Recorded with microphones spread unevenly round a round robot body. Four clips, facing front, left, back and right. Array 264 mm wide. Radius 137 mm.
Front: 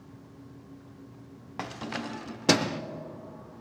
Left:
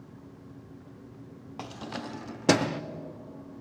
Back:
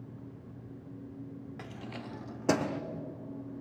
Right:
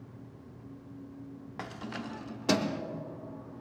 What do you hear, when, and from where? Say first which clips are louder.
1.6 s keys jangling: left 2 dB, front 12 dB; 15° left, 1.0 m; by 2.8 s 70° left, 1.3 m